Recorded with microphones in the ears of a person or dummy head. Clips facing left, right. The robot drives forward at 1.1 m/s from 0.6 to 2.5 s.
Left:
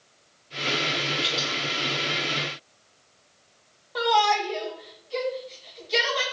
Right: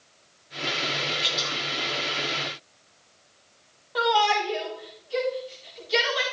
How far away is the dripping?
About 7.5 m.